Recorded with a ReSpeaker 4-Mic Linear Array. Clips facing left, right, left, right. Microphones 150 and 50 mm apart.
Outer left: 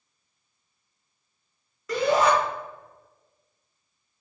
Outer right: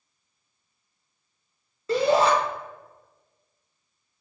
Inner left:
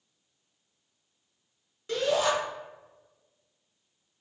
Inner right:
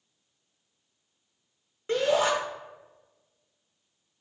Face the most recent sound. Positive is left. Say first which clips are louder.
# outer right 1 dB, inner right 2 dB
turn(degrees=-30)  # may be behind; listen again after turning